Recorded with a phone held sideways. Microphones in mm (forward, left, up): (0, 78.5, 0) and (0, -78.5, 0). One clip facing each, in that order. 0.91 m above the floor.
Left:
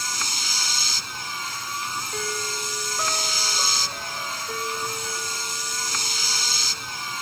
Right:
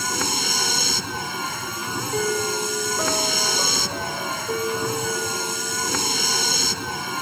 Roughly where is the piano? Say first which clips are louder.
Right 10 dB; right.